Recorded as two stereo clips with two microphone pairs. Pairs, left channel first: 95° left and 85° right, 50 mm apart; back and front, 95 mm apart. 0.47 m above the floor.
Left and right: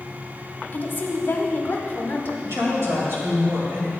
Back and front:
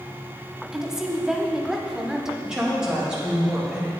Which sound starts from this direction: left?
A woman speaking, at 0.7 s.